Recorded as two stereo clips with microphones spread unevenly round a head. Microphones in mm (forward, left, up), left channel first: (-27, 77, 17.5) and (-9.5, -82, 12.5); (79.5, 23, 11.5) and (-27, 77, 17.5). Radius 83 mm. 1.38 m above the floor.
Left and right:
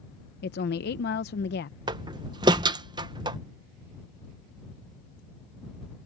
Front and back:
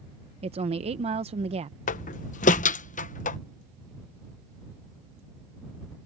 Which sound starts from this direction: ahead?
A door slam, at 1.9 s.